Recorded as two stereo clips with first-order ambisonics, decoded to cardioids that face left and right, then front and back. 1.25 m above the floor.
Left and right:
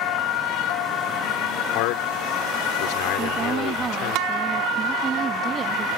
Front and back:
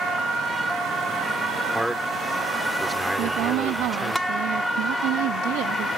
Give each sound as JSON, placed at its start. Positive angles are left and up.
{"t": 1.8, "sound": "a man speaking", "azimuth_deg": 95}
{"t": 3.2, "sound": "a woman speaking", "azimuth_deg": -155}